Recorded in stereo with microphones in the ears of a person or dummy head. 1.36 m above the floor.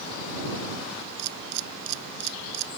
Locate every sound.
1.2 s a camera shutter: 70° right (ahead or behind)